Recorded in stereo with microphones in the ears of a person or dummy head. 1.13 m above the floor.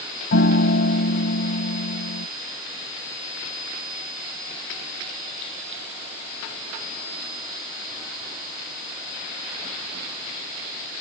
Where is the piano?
60° left (ahead or behind).